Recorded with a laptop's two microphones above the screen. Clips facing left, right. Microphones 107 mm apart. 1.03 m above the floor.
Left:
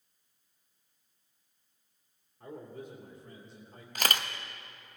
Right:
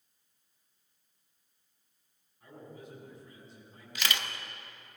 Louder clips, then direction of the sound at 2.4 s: Left 5 dB; 50° left (ahead or behind).